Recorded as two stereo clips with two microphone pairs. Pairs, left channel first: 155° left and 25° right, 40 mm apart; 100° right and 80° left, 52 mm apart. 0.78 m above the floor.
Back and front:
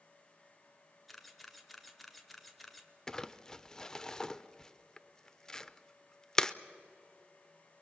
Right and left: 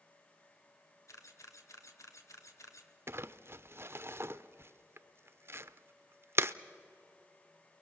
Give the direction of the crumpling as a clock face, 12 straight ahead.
9 o'clock.